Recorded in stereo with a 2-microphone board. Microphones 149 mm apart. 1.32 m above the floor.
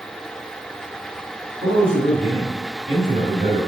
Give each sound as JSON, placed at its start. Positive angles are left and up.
{"t": 1.6, "sound": "a man speaking", "side_deg": -65, "distance_m": 3.0}